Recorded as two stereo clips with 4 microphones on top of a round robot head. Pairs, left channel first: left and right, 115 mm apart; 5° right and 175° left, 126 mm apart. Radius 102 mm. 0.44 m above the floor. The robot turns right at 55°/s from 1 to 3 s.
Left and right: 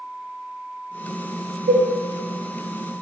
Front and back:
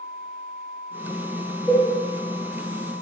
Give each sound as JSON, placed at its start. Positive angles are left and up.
{"t": 1.7, "sound": "a cowbell", "azimuth_deg": -85, "distance_m": 0.7}